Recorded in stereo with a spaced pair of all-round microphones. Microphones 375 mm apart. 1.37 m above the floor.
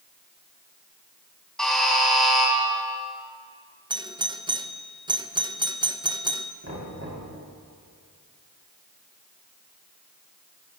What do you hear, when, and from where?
1.6 s a buzzer: centre (ahead or behind), 6 m
3.9 s a doorbell: 10° right (ahead or behind), 0.6 m
6.6 s knocking: 40° right (ahead or behind), 5.5 m